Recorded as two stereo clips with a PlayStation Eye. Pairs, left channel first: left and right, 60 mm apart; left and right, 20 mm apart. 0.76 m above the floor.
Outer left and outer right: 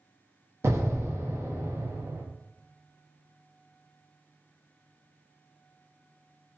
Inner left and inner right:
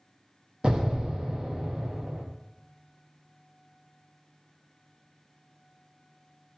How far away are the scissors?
No scissors in this recording.